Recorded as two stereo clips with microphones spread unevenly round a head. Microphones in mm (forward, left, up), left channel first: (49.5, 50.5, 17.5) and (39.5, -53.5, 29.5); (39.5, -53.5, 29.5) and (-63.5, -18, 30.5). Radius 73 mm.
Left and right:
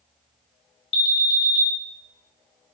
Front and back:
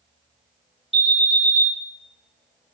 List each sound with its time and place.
0.9 s an alarm: 70° left, 0.7 m